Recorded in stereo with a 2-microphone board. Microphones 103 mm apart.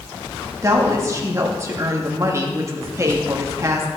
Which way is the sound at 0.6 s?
30° right (ahead or behind).